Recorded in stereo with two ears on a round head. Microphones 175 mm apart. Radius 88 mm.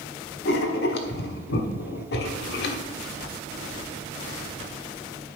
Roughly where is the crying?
I don't hear crying.